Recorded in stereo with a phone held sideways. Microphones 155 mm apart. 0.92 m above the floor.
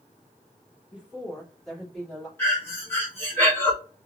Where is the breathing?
15° left (ahead or behind), 1.9 m.